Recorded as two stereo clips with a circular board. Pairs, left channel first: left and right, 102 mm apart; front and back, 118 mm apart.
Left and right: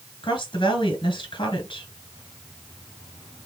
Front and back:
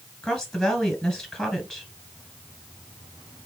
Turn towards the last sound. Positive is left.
turn(degrees=85)